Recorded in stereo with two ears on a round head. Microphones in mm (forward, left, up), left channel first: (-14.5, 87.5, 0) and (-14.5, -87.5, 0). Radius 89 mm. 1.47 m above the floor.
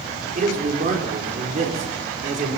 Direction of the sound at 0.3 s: 40° right (ahead or behind).